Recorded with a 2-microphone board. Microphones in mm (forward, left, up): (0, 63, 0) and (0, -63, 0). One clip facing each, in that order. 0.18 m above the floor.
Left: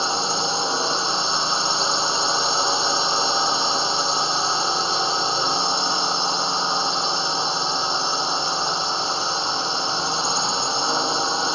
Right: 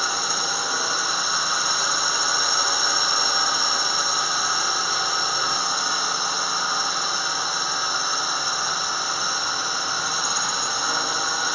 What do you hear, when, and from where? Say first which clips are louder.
0.0 s a drone: left 4 dB; 25° left (ahead or behind)